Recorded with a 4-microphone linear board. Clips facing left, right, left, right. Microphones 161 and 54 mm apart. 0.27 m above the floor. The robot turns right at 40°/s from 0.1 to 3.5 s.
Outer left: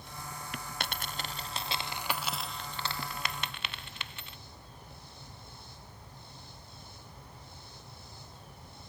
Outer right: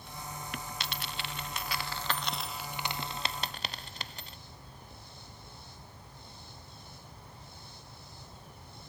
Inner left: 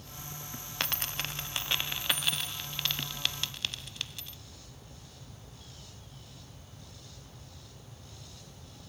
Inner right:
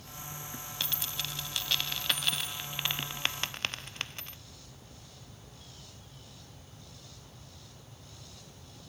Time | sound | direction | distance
0.8 | a dropped coin | 55° left (ahead or behind) | 0.5 m